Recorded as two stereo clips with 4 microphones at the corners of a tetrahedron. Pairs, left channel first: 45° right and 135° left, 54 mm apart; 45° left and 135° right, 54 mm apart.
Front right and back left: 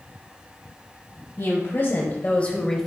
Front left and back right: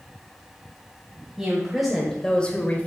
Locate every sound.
1.4 s a woman speaking: 60° right, 1.7 m; by 2.9 s 35° left, 1.2 m